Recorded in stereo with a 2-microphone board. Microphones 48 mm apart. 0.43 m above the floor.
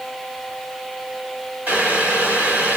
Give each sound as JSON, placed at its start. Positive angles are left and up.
{"t": 1.7, "sound": "boiling", "side_deg": -25, "distance_m": 1.7}